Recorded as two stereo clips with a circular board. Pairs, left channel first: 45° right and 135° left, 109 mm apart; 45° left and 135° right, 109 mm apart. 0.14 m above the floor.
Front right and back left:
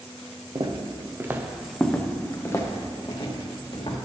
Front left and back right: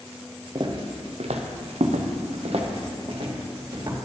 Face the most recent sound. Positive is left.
turn(degrees=-85)